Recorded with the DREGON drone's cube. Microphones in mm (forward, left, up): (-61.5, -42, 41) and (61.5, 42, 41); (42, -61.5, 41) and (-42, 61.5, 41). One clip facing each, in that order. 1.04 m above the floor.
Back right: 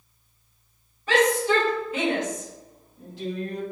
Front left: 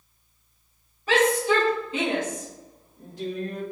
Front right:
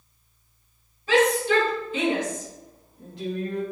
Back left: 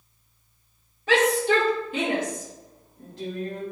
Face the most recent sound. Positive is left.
turn(degrees=70)